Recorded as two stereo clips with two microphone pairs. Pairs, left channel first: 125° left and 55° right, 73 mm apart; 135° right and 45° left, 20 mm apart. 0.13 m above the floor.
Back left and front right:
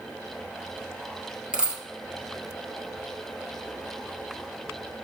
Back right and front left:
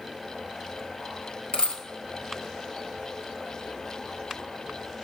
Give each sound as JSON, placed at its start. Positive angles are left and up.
{"t": 1.5, "sound": "a dropped coin", "azimuth_deg": -130, "distance_m": 1.4}